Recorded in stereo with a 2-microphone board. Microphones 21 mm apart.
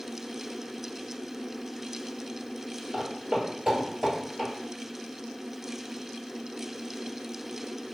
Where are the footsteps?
35° right (ahead or behind), 1.4 m; by 4.5 s 20° right (ahead or behind), 1.5 m.